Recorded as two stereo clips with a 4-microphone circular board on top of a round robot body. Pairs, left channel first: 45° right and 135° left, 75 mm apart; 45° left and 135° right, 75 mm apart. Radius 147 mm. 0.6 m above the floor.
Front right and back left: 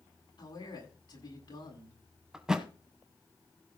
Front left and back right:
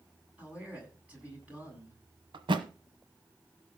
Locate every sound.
0.4 s a man speaking: 65° right, 8 m
2.3 s a thud: 145° right, 0.9 m